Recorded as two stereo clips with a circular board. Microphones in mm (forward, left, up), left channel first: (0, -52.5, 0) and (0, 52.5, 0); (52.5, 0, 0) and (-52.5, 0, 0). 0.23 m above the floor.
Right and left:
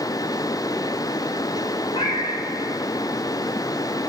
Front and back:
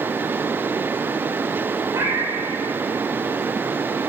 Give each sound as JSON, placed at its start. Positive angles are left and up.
{"t": 1.9, "sound": "a cat meowing", "azimuth_deg": -120, "distance_m": 1.5}